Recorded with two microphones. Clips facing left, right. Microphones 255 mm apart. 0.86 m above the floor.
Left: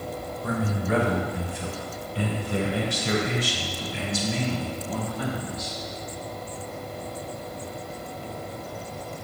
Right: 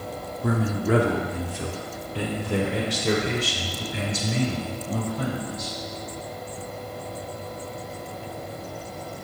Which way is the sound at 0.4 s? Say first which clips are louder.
Right 4 dB; 70° right (ahead or behind).